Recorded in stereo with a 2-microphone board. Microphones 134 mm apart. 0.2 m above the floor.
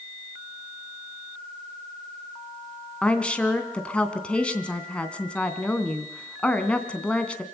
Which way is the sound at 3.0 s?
10° left (ahead or behind).